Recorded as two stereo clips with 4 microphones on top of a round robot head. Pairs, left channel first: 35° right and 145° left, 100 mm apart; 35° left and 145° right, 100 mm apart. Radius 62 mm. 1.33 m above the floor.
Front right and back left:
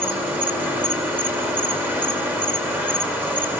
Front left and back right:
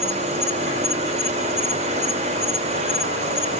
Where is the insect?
145° right, 4.5 m.